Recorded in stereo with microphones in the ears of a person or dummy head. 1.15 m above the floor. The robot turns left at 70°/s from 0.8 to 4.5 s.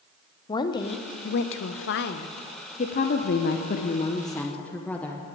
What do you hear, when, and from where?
0.5 s a woman speaking: 155° left, 0.7 m; by 2.3 s 45° left, 0.7 m
2.8 s a woman speaking: 130° left, 0.7 m; by 5.2 s 10° left, 0.7 m